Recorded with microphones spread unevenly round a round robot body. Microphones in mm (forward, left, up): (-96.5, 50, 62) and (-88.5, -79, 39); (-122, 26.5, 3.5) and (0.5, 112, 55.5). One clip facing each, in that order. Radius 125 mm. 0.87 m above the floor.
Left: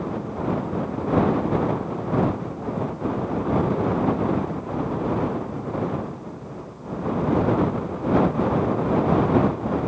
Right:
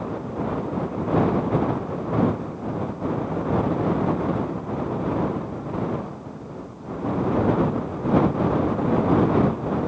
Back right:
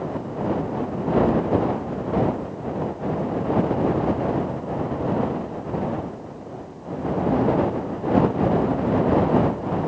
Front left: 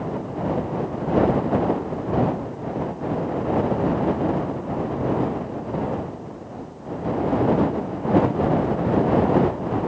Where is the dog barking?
I don't hear a dog barking.